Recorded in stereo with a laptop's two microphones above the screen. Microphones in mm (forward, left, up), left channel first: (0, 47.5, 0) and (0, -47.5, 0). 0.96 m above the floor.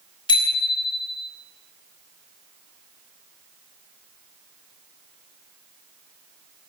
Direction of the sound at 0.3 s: 60° left (ahead or behind).